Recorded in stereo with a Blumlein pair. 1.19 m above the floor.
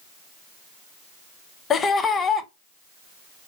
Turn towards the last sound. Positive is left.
turn(degrees=20)